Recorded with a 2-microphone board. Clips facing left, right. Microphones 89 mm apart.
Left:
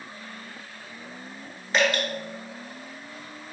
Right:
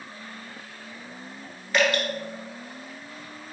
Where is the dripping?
25° left (ahead or behind), 1.2 m.